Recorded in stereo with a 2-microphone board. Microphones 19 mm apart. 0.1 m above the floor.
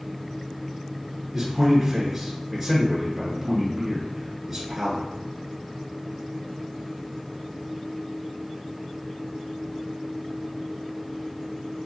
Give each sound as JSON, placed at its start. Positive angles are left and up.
{"t": 1.3, "sound": "a man speaking", "side_deg": -15, "distance_m": 1.3}